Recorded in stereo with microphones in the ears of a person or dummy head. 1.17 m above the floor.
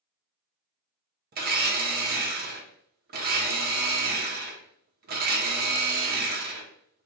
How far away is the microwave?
I don't hear a microwave.